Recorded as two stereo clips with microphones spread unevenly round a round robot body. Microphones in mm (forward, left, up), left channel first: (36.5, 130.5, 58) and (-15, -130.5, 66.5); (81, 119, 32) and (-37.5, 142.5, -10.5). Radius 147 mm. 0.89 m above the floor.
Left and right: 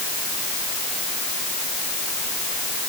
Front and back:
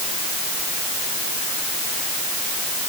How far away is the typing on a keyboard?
I don't hear typing on a keyboard.